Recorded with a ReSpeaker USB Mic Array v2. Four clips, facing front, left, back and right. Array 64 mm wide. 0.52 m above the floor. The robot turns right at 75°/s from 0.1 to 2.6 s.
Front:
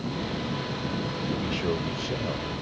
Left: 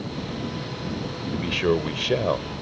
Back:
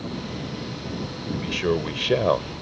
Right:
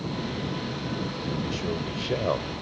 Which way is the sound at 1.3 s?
95° left.